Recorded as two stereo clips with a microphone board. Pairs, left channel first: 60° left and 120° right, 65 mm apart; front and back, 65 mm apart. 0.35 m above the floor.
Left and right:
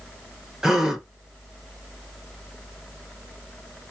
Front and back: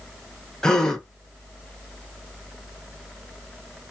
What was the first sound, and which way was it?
A gasp, 55° right.